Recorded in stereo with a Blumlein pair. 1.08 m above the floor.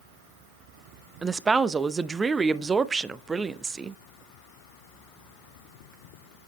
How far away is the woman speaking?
About 0.7 m.